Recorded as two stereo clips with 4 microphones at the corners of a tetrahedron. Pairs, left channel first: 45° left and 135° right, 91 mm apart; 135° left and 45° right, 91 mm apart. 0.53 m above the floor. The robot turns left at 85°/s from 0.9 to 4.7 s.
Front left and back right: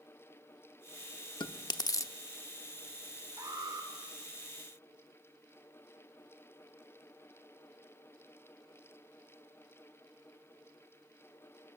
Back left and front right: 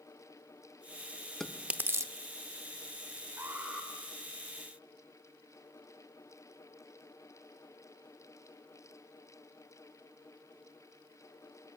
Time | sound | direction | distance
1.4 | chewing | 50° left | 0.7 m
3.4 | an alarm | 95° right | 3 m